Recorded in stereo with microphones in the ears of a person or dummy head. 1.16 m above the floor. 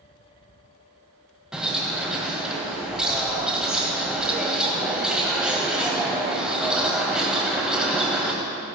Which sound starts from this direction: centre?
A bird, at 1.5 s.